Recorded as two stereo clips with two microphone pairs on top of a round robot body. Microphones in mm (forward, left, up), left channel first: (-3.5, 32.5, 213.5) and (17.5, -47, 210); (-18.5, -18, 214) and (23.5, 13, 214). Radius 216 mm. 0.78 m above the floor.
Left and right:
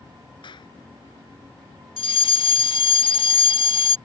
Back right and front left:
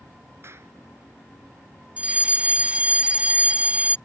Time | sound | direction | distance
0.4 | a clap | 75° left | ?
2.0 | a fire alarm | 105° left | ?